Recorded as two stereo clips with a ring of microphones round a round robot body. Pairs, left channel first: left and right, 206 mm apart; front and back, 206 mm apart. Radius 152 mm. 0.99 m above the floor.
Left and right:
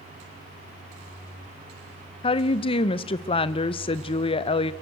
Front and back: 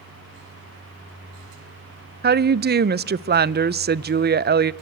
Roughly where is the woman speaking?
Behind left.